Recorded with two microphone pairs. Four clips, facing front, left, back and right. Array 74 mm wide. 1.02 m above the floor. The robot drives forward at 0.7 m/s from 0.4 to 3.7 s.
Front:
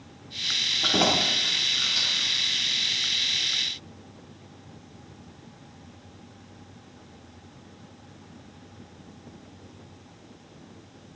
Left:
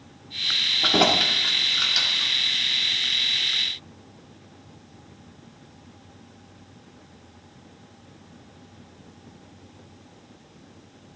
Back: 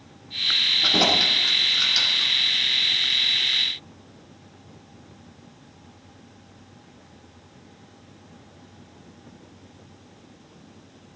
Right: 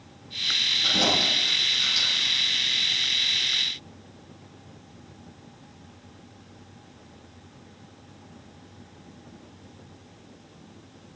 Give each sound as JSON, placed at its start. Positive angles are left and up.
{"t": 0.8, "sound": "keys jangling", "azimuth_deg": 85, "distance_m": 1.6}